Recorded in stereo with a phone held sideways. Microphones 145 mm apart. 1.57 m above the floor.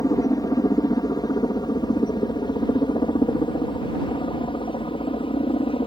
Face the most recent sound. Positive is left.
turn(degrees=40)  # may be behind; listen again after turning